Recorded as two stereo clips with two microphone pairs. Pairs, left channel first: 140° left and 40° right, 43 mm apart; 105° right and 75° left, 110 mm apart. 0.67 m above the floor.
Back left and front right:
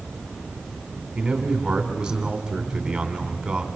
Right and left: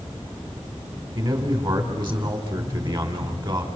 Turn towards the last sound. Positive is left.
turn(degrees=30)